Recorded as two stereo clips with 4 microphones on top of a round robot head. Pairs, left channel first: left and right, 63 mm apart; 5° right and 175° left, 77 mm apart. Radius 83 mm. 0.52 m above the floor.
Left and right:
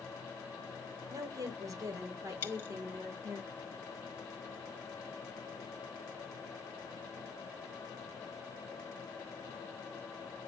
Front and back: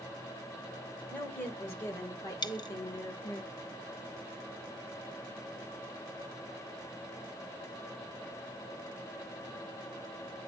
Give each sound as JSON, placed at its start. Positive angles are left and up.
{"t": 1.1, "sound": "a woman speaking", "azimuth_deg": -70, "distance_m": 2.5}
{"t": 2.4, "sound": "a dropped coin", "azimuth_deg": 25, "distance_m": 1.3}